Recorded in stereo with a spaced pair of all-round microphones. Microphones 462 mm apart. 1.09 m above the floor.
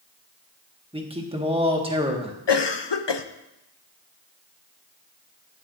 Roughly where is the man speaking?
Centre.